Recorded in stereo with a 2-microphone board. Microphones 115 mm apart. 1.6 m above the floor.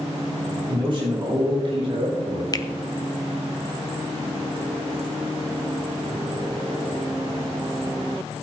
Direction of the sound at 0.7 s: 45° right (ahead or behind).